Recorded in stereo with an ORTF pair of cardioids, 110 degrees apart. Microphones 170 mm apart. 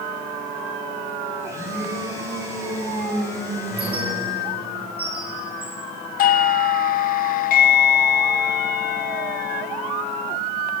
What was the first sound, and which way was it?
A blender, 20° right.